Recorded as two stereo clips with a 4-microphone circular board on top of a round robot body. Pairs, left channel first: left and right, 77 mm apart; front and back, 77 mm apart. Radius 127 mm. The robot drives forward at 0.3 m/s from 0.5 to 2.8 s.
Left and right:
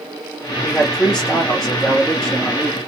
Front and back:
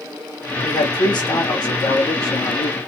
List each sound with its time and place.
0.6 s a man speaking: 5° left, 2.5 m; by 2.8 s 10° left, 1.8 m